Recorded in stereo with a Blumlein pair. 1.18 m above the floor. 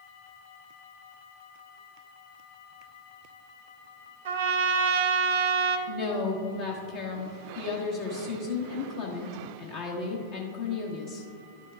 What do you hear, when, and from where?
4.2 s a trumpet: 55° right, 0.7 m
5.9 s a woman speaking: 50° left, 1.0 m